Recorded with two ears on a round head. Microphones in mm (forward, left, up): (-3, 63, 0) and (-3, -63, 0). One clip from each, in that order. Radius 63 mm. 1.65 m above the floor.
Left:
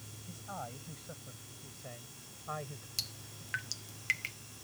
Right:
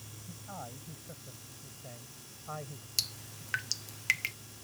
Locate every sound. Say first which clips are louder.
0.3 s a man speaking: left 2 dB; 75° left (ahead or behind); by 2.9 s 90° left
3.0 s dripping: right 5 dB; 25° right (ahead or behind)